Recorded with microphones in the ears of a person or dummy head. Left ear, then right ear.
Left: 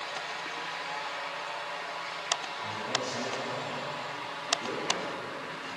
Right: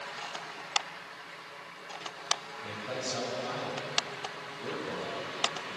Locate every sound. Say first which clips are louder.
2.6 s a man speaking: left 4 dB; centre (ahead or behind), 8.5 m; by 5.8 s 5° right (ahead or behind), 10.5 m